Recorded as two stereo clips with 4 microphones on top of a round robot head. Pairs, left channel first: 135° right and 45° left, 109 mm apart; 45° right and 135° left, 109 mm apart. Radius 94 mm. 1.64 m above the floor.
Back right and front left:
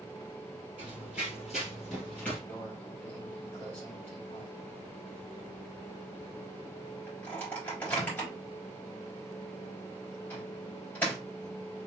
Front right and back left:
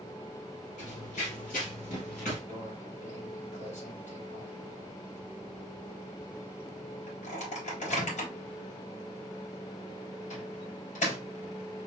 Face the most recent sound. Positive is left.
turn(degrees=-55)